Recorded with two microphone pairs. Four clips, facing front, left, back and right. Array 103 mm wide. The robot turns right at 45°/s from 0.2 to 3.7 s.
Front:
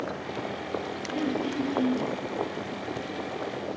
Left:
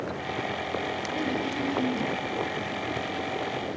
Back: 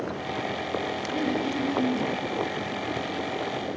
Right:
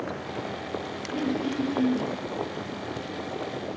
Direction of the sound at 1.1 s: 165° right.